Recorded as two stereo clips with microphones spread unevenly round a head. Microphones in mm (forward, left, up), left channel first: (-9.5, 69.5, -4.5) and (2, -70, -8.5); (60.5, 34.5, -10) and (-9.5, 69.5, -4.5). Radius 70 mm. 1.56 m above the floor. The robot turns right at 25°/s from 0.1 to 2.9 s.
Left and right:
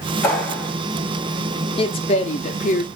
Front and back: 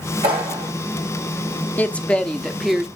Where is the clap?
165° left, 2.5 m; by 0.7 s 175° left, 2.5 m.